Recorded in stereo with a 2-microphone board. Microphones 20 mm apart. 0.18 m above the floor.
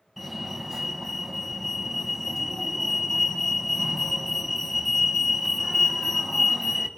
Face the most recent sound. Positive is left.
turn(degrees=5)  # may be behind; listen again after turning